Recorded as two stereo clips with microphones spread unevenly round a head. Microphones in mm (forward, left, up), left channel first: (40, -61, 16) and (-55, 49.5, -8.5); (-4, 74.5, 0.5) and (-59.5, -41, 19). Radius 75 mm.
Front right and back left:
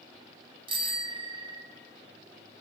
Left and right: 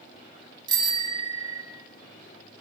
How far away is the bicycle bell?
About 3.5 m.